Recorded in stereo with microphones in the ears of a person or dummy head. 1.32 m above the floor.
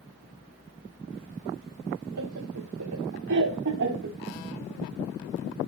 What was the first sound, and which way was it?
Laughter, 85° right.